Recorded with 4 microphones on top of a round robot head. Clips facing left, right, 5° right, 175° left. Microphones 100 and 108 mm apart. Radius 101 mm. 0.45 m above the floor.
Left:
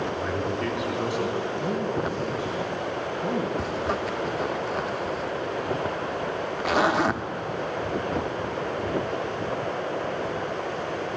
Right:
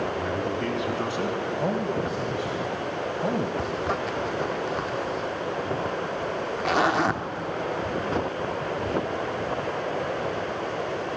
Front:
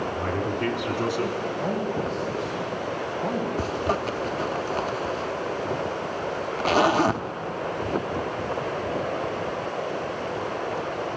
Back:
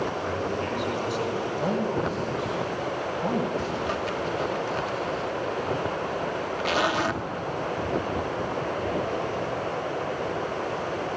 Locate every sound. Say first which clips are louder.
0.1 s a man speaking: even, front 1 dB; 20° right, 3.5 m; by 1.4 s 35° right, 4 m
1.6 s a man speaking: right 2 dB, back 2 dB; 105° right, 3 m
3.6 s a zipper: even, front 2 dB; straight ahead, 0.9 m